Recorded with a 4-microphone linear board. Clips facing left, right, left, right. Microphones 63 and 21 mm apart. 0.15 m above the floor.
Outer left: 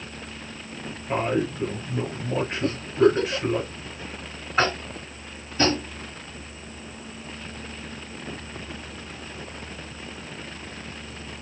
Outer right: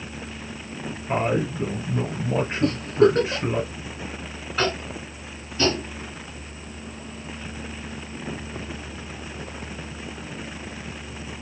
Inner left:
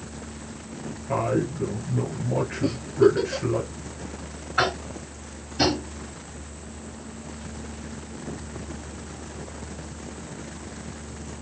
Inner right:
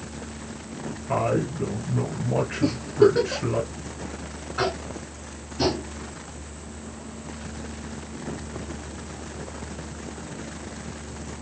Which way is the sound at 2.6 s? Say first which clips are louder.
Outer right 2 dB, inner right 1 dB; 70° right (ahead or behind).